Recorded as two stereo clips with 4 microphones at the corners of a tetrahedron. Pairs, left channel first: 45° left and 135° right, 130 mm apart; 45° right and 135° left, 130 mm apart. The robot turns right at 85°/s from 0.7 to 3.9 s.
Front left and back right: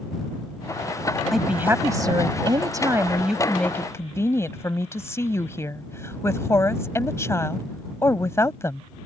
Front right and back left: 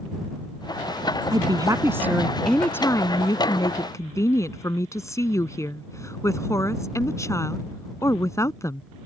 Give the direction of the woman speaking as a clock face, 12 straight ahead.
7 o'clock.